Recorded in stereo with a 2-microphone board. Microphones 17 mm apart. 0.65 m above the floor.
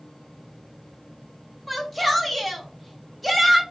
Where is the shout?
5° right (ahead or behind), 0.8 m.